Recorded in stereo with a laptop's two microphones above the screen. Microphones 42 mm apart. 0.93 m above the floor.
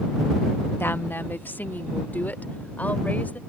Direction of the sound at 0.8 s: 60° left (ahead or behind).